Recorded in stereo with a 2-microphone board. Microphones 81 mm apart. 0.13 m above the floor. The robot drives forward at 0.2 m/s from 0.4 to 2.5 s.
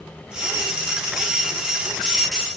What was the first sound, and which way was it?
Only background noise.